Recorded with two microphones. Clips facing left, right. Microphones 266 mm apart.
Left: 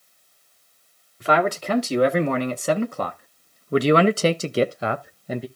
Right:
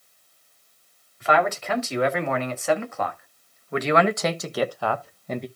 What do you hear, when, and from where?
1.2 s a man speaking: 40° left (ahead or behind), 2 m; by 5.5 s 5° left (ahead or behind), 0.7 m